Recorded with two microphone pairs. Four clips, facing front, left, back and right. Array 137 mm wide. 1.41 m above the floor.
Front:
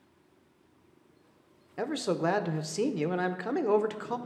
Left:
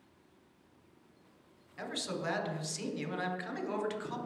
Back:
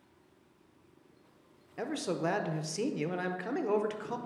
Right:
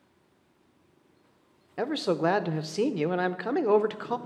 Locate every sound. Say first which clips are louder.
1.8 s a man speaking: right 12 dB, front 4 dB; 75° right, 0.7 m